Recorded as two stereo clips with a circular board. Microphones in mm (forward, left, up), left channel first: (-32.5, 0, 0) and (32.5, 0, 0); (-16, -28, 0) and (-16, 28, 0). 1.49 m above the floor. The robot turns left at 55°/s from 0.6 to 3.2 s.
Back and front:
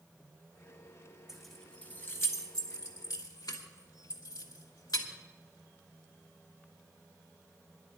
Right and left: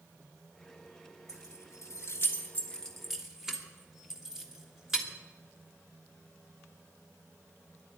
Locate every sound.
1.3 s keys jangling: 80° right, 1.5 m; by 5.1 s 175° left, 1.5 m